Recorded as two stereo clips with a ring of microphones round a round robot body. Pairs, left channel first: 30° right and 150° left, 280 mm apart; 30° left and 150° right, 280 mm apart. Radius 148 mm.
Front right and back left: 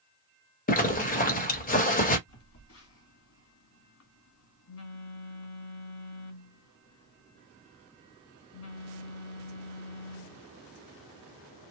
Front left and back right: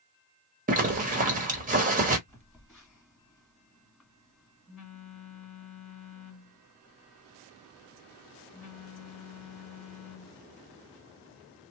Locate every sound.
0.7 s a zipper: 90° right, 1.1 m
2.3 s a phone buzzing: 60° right, 1.8 m